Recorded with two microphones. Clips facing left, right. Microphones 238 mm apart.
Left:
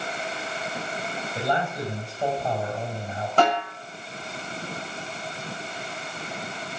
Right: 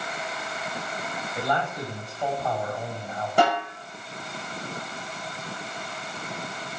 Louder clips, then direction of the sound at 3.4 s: Left 1 dB; 10° right (ahead or behind).